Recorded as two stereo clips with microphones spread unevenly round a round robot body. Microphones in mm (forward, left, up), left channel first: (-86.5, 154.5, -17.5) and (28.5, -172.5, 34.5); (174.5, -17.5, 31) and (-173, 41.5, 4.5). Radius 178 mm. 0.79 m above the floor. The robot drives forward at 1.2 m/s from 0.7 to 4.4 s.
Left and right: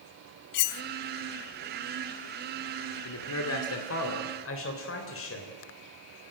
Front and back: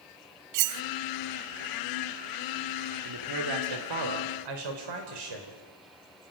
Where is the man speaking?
145° left, 2.0 m; by 5.6 s 160° left, 3.5 m.